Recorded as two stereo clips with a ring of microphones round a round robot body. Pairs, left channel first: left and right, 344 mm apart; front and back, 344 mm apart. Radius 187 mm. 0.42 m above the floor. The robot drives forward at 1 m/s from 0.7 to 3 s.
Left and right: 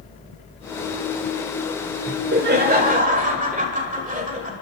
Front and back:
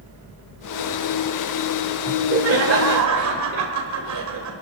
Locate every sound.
2.1 s laughter: 125° right, 1.3 m; by 4.5 s 155° right, 1.9 m